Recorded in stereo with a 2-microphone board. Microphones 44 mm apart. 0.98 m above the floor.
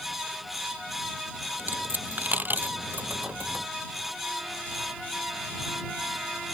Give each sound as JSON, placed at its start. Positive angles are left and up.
{"t": 1.6, "sound": "a dropped coin", "side_deg": -45}